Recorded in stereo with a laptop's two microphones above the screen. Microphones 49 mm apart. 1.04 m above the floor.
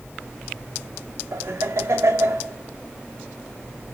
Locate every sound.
1.3 s laughter: 80° right, 2.5 m